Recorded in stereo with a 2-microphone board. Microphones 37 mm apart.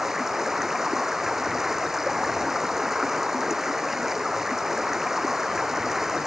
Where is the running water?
10° right (ahead or behind).